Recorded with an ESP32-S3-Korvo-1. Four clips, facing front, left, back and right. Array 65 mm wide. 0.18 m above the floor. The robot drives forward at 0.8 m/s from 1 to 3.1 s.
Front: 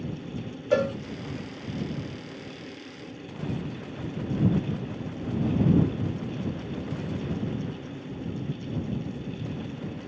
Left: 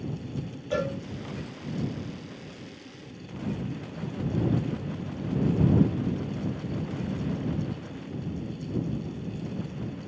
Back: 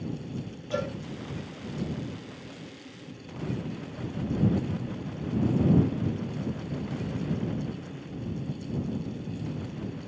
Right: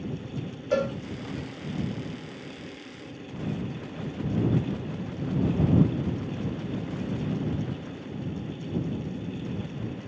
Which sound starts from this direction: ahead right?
A cowbell, at 0.7 s.